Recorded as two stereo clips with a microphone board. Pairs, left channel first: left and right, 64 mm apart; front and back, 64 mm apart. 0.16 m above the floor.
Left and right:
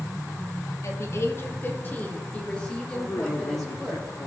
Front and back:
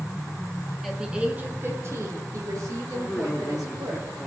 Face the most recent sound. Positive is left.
turn(degrees=100)